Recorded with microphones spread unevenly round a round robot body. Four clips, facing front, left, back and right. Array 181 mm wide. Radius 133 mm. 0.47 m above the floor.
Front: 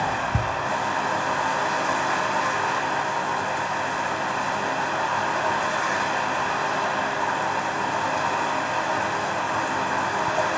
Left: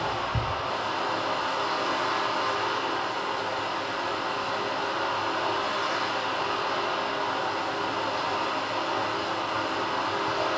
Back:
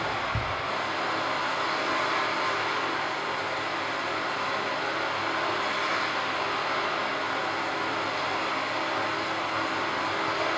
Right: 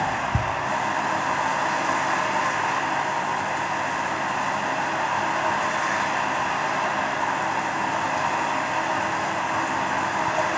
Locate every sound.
0.0 s running water: 30° right, 1.1 m